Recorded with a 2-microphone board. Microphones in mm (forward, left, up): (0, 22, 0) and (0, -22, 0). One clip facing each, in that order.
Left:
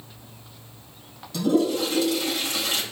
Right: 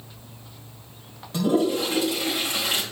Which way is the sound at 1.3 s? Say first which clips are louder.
Even; 30° right (ahead or behind).